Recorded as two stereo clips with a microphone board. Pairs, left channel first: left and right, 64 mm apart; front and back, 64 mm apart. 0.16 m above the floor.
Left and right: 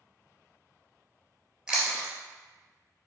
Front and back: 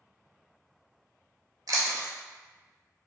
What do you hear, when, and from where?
1.7 s chewing: 165° right, 0.8 m